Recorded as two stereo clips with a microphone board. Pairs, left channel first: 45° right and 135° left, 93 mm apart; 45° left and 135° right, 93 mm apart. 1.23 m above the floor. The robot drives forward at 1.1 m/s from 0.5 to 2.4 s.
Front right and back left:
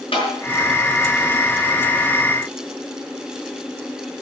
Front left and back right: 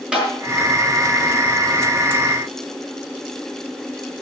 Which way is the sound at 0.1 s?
55° right.